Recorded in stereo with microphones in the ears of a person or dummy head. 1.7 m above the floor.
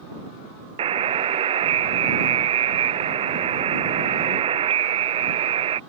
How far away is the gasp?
No gasp in this recording.